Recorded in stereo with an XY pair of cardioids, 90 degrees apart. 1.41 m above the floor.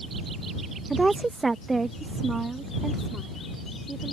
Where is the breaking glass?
No breaking glass in this recording.